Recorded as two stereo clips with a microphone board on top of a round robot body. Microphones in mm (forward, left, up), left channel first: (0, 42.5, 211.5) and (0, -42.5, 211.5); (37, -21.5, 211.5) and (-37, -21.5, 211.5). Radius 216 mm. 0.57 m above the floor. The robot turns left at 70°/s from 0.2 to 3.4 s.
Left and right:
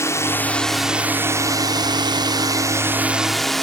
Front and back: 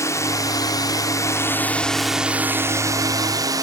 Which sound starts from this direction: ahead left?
A drone, at 0.0 s.